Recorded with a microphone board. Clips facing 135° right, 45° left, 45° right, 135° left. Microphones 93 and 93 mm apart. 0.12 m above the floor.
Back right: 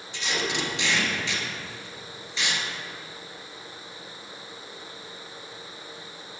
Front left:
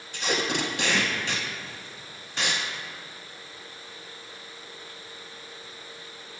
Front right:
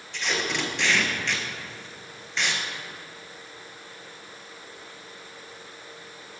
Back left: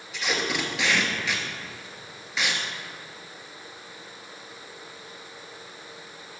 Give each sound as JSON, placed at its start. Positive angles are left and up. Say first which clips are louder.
{"t": 0.1, "sound": "tape being pulled", "louder": "front left 2 dB, back left 1 dB", "azimuth_deg": 50, "distance_m": 0.8}